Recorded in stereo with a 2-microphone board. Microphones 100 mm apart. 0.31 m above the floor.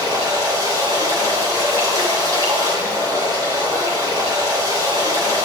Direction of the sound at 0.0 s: 35° right (ahead or behind).